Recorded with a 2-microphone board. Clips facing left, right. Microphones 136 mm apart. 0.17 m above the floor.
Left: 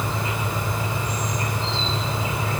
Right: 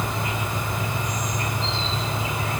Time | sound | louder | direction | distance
0.0 | an insect | left 1 dB | 30° left (ahead or behind) | 3 m